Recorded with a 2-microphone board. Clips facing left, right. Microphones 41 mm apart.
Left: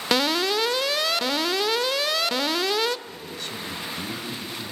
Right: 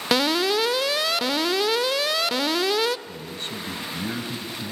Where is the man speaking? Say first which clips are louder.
Right 1 dB; 35° right (ahead or behind), 2.0 m.